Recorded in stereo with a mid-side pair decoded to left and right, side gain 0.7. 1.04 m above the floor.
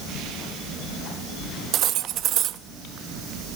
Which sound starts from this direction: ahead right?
Cutlery clinking, at 1.7 s.